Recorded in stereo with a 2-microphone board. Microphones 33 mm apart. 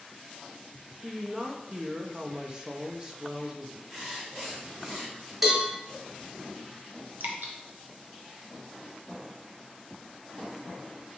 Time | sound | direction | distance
1.0 | a woman speaking | 25° right (ahead or behind) | 0.5 m
3.9 | writing | 20° right (ahead or behind) | 2.0 m
5.4 | a cowbell | 10° right (ahead or behind) | 1.3 m
7.2 | dripping | 75° right (ahead or behind) | 0.6 m